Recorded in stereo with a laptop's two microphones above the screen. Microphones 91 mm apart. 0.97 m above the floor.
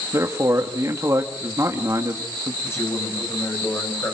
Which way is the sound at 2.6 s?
30° left (ahead or behind).